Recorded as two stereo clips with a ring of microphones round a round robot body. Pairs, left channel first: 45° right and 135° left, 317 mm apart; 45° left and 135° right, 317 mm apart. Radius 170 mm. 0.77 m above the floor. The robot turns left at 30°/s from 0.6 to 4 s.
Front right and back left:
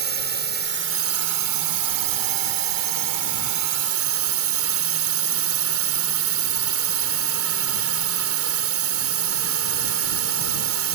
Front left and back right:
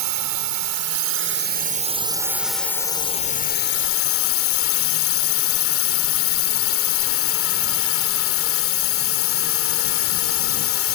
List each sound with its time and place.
0.0 s a drone: 165° right; by 10.9 s 90° left